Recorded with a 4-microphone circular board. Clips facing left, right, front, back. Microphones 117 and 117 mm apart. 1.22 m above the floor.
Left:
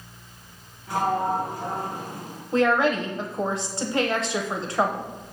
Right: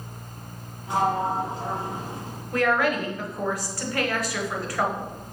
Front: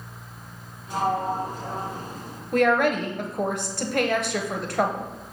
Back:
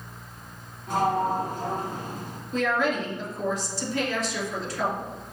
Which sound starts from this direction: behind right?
A sliding door, at 0.9 s.